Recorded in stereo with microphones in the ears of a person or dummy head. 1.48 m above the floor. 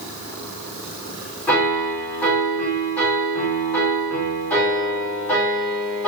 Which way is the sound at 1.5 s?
5° left (ahead or behind).